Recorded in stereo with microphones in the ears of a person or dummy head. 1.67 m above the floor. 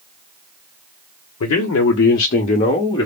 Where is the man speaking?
65° left (ahead or behind), 0.8 m; by 3.1 s 20° left (ahead or behind), 1.1 m.